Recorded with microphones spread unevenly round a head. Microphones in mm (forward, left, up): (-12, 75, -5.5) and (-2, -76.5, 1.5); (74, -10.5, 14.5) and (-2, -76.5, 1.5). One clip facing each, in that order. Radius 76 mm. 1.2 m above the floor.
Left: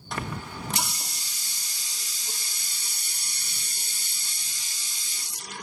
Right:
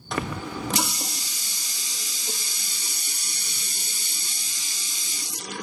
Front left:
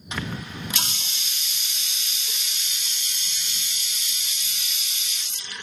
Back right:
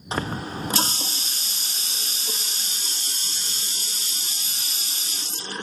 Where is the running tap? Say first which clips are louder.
Right 5 dB, back right 4 dB; 85° right.